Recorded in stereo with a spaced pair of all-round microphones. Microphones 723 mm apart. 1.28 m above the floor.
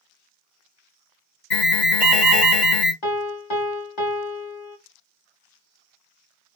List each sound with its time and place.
1.5 s an alarm: 75° left (ahead or behind), 2.5 m
3.0 s a piano: 45° left (ahead or behind), 1.1 m